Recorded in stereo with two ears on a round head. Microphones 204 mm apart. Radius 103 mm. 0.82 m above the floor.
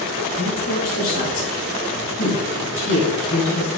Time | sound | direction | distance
0.3 | a woman speaking | 50° left (ahead or behind) | 5 m